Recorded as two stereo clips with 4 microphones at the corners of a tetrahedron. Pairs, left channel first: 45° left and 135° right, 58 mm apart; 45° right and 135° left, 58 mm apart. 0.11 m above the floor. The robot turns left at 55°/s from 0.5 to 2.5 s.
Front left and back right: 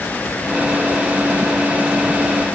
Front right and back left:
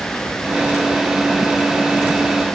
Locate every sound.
Only background noise.